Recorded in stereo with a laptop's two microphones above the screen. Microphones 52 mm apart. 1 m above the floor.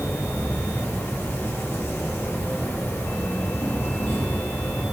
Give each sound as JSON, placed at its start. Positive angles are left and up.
{"t": 0.0, "sound": "an insect", "side_deg": 55, "distance_m": 1.3}